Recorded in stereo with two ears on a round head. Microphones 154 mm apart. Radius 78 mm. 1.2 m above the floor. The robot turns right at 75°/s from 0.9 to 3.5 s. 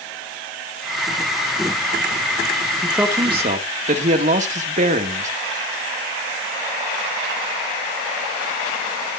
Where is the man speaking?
175° left, 1.8 m; by 5.3 s 135° right, 1.8 m.